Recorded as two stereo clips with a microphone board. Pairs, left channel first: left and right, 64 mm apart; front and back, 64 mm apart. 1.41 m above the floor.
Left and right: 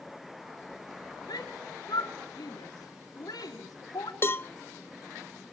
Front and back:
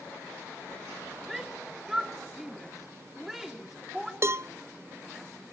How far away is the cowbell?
About 0.6 m.